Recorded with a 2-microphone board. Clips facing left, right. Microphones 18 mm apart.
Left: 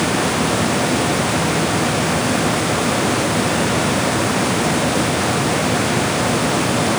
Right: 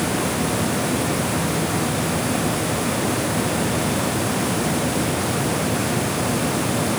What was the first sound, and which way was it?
Only background noise.